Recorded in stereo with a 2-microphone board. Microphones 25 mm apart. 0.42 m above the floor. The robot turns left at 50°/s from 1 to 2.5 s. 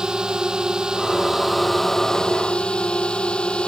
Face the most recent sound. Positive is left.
turn(degrees=135)